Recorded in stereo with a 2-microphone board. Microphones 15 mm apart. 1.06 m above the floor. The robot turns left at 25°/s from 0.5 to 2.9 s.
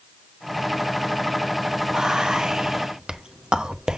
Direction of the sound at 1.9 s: 50° right (ahead or behind).